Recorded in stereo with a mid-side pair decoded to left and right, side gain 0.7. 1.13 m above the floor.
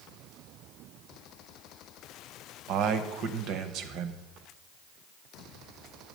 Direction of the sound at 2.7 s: 55° right.